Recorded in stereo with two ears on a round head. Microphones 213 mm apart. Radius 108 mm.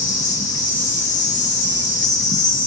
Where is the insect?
35° left (ahead or behind), 0.8 m.